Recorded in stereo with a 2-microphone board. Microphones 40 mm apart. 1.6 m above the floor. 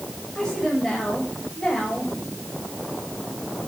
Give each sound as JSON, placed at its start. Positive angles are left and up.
{"t": 0.3, "sound": "a woman speaking", "side_deg": 10, "distance_m": 8.0}